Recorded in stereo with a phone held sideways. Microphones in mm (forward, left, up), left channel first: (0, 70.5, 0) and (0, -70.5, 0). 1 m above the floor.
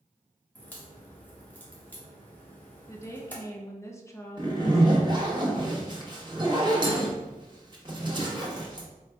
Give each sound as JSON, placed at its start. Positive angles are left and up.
{"t": 0.6, "sound": "a crack", "side_deg": 10, "distance_m": 1.2}
{"t": 2.9, "sound": "a woman speaking", "side_deg": 20, "distance_m": 0.5}
{"t": 4.4, "sound": "a zipper", "side_deg": -30, "distance_m": 0.9}